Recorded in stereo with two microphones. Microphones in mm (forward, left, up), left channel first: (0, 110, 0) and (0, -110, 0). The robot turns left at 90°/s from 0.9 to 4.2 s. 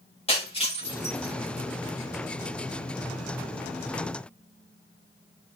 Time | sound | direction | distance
0.3 | breaking glass | 25° left (ahead or behind) | 8 m